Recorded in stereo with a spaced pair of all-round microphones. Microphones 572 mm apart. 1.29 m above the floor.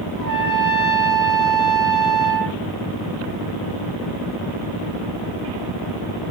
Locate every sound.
0.2 s a trumpet: 15° left (ahead or behind), 5 m